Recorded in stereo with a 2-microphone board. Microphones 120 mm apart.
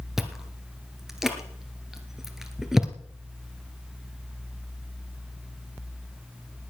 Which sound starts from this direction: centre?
Chewing, at 0.2 s.